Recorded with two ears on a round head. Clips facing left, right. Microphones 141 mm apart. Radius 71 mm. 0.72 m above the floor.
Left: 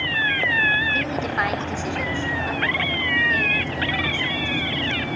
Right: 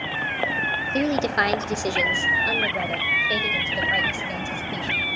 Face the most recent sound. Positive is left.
turn(degrees=-45)  # may be behind; listen again after turning